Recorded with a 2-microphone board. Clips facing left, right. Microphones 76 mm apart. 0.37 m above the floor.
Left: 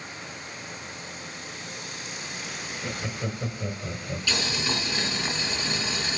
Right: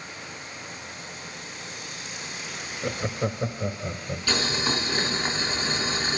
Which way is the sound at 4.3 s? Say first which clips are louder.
Right 3 dB; 45° right (ahead or behind).